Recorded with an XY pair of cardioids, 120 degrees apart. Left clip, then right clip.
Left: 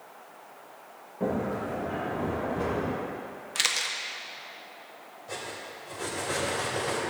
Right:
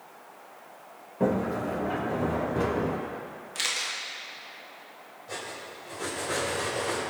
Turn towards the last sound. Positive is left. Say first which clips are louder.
# even
turn(degrees=10)